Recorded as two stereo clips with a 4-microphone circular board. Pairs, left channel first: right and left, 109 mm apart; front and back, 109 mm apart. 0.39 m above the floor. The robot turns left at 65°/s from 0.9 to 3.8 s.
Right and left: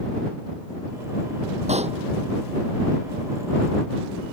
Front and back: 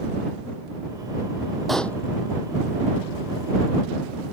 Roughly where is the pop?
Left.